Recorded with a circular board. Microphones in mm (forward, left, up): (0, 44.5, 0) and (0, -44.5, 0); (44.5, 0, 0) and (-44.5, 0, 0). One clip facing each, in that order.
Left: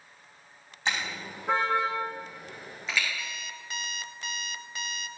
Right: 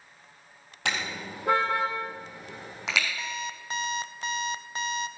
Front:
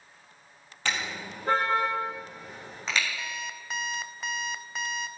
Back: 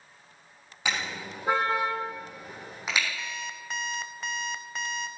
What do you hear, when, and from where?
0.8 s a car horn: 100° right, 4 m
3.2 s an alarm clock: 85° right, 0.6 m